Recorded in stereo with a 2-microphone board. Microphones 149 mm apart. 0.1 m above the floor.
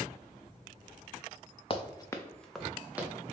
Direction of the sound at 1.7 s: 40° left (ahead or behind).